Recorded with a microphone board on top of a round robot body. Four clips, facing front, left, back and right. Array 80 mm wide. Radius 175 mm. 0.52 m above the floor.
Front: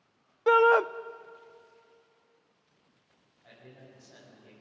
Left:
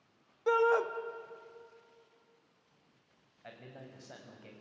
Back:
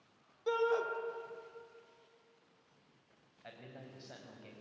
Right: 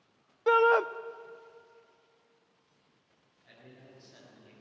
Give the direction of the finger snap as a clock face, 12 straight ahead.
I don't hear a finger snap.